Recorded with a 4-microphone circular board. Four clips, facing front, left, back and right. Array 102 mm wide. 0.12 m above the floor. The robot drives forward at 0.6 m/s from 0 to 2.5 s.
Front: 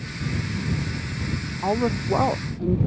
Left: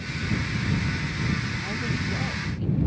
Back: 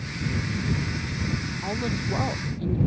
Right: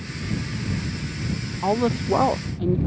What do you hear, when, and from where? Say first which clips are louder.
1.6 s a woman speaking: right 8 dB, front 9 dB; 60° right; by 2.8 s 65° right